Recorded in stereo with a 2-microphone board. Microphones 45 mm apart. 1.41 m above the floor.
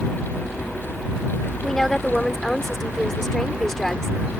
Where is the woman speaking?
10° left (ahead or behind).